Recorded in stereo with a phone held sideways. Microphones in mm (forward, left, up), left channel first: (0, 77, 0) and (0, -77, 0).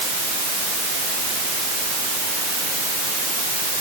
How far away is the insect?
I don't hear an insect.